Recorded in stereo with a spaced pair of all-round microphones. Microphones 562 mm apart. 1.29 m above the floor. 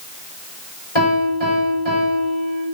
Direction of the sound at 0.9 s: 55° left (ahead or behind).